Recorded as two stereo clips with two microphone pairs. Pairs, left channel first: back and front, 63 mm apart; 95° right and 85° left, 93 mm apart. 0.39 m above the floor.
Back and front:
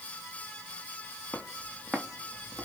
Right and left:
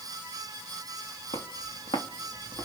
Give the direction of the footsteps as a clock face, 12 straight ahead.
3 o'clock.